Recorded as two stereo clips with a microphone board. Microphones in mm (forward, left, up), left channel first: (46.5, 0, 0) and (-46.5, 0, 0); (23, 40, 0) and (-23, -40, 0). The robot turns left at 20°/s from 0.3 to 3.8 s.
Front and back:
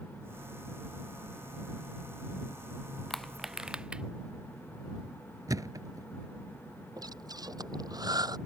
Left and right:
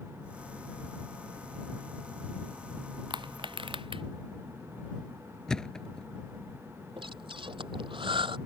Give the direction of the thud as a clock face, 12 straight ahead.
7 o'clock.